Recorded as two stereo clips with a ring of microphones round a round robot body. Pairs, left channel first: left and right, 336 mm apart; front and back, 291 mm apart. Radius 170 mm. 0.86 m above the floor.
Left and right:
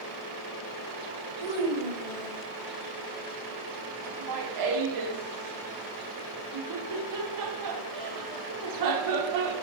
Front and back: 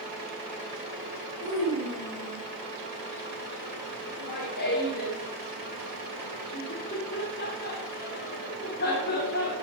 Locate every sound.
1.4 s a child speaking: 80° right, 3.5 m; by 2.4 s 90° right, 3 m
4.1 s laughter: 60° right, 2.5 m